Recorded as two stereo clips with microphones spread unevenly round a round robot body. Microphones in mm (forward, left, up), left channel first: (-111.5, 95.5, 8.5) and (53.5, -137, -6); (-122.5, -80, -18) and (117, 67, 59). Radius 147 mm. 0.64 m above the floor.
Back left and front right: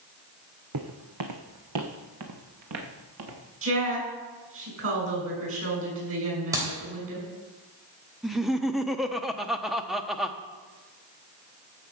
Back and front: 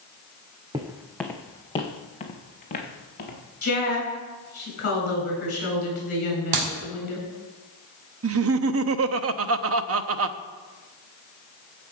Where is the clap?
25° left, 3 m.